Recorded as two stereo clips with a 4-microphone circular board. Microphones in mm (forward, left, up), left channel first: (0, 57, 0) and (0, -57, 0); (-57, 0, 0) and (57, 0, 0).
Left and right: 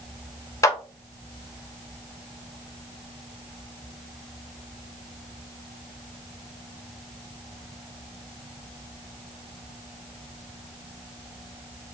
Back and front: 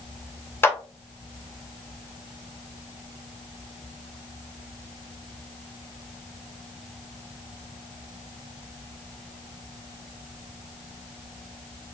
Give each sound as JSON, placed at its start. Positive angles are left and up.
{"t": 0.6, "sound": "a clap", "azimuth_deg": 125, "distance_m": 0.8}